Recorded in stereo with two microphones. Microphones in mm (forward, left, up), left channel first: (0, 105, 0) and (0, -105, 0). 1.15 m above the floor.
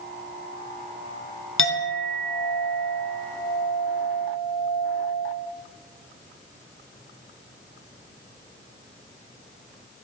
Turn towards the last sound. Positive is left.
turn(degrees=75)  # may be behind; listen again after turning